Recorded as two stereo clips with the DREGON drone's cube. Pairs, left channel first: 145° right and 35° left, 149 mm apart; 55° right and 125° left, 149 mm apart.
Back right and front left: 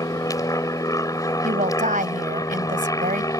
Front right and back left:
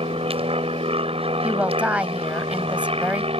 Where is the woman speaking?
45° left.